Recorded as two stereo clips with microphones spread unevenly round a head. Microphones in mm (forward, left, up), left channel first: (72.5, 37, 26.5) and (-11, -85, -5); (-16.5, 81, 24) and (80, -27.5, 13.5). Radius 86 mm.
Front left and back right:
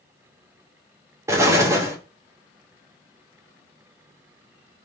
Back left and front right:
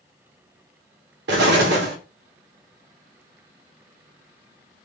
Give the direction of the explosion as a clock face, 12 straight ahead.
2 o'clock.